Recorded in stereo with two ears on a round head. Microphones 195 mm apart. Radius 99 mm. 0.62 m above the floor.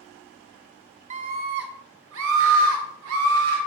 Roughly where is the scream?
Right.